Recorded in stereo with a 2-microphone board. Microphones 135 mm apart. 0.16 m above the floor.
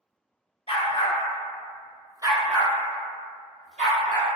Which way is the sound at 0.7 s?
50° left (ahead or behind).